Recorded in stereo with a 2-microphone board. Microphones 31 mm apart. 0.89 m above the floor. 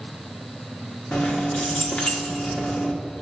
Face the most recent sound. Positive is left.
turn(degrees=40)  # may be behind; listen again after turning